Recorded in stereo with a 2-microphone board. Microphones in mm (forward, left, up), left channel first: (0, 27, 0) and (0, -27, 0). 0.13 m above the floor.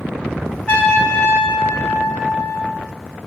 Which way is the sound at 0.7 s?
20° left (ahead or behind).